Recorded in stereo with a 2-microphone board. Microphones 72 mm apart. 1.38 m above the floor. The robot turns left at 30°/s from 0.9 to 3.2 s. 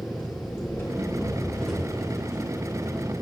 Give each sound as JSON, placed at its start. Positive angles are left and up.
{"t": 0.0, "sound": "an engine running", "azimuth_deg": 35, "distance_m": 5.5}